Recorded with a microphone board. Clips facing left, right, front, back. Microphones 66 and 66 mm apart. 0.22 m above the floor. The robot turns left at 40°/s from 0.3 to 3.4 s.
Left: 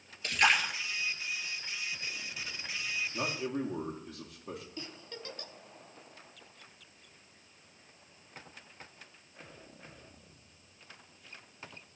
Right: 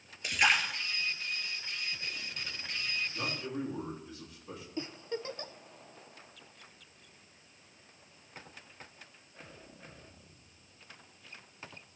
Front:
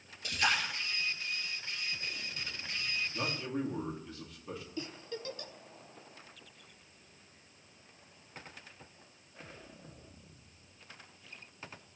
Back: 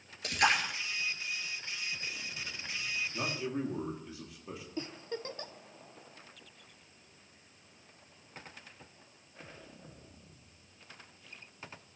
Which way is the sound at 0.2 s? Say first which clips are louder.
Left 1 dB, back 3 dB; 170° right.